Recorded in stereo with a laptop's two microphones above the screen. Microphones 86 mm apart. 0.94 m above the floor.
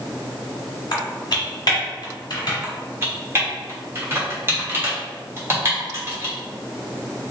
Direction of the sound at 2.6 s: 30° right (ahead or behind).